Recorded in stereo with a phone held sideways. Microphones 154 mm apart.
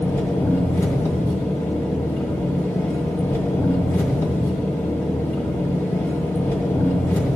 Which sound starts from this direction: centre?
An engine running, at 0.0 s.